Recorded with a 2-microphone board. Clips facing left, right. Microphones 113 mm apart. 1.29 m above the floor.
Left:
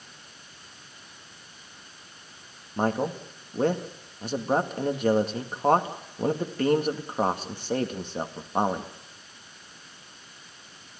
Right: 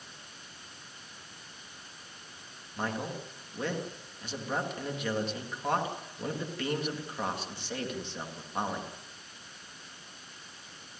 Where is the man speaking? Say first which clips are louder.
Left 9 dB; 45° left (ahead or behind), 2 m.